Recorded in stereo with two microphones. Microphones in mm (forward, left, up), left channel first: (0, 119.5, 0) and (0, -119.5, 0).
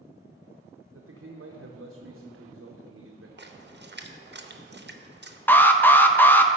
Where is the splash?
45° right (ahead or behind), 0.7 m.